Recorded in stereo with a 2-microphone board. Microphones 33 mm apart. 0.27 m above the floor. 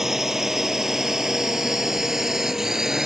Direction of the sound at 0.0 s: 10° right (ahead or behind).